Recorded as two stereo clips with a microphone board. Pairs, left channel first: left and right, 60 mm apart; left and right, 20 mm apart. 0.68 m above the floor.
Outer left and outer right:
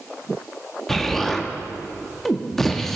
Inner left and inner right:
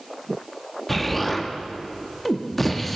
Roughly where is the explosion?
Centre.